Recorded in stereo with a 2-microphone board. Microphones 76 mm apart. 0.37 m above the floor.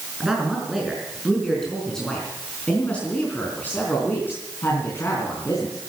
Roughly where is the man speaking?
Centre.